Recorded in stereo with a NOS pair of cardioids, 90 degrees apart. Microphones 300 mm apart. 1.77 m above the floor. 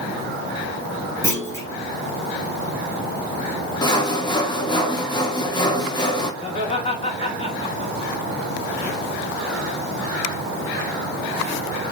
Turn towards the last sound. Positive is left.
turn(degrees=20)